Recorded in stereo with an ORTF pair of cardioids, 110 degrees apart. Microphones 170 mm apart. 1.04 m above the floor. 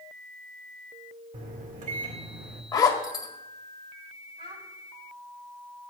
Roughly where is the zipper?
Ahead.